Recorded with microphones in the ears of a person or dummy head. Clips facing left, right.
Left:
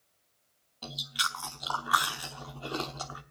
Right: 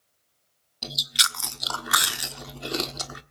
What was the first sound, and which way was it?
Chewing, 30° right (ahead or behind).